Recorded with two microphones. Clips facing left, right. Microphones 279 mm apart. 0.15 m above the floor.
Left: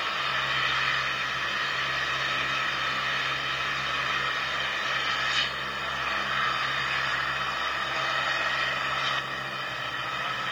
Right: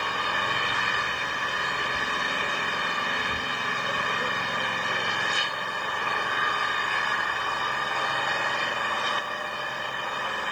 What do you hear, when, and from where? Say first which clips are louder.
0.0 s an engine running: right 5 dB; 60° right (ahead or behind)